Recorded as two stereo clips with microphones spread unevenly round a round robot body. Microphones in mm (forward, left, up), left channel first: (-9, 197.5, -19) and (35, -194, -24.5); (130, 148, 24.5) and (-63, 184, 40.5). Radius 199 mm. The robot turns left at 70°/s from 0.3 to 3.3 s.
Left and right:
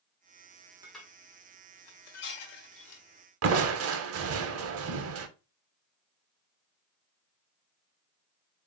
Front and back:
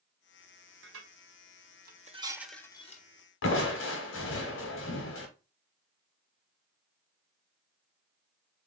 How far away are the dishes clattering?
About 0.9 m.